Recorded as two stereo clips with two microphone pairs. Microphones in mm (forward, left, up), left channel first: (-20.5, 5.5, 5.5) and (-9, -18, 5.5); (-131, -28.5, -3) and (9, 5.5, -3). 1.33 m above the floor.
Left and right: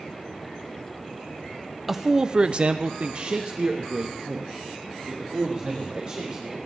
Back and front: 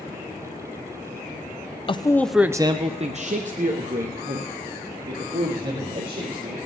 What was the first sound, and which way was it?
A man speaking, 140° right.